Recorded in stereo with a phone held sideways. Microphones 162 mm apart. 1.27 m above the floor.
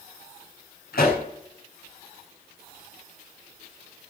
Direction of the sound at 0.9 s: 75° left (ahead or behind).